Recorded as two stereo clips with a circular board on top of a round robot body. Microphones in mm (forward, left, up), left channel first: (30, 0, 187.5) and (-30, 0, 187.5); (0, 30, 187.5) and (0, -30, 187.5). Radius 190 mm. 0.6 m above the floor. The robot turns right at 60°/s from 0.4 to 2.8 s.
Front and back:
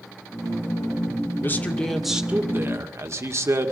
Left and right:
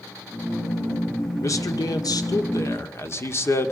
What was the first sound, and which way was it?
A man speaking, 55° left.